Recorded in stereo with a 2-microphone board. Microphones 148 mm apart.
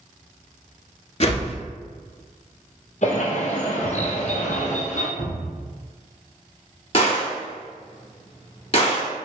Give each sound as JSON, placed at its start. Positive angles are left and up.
{"t": 1.2, "sound": "a whoosh", "side_deg": 50, "distance_m": 0.6}
{"t": 3.0, "sound": "a bird", "side_deg": 55, "distance_m": 0.8}
{"t": 5.2, "sound": "a cupboard door", "side_deg": 50, "distance_m": 1.5}
{"t": 6.9, "sound": "a gunshot", "side_deg": 45, "distance_m": 1.4}